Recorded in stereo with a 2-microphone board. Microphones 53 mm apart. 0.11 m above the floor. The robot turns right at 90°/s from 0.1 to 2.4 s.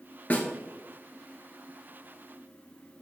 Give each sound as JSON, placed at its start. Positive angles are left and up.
{"t": 0.3, "sound": "a snare drum", "side_deg": 30, "distance_m": 0.5}